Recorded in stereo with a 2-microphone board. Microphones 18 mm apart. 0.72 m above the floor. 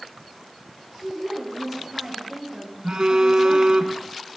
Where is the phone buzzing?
55° right (ahead or behind), 1.1 m.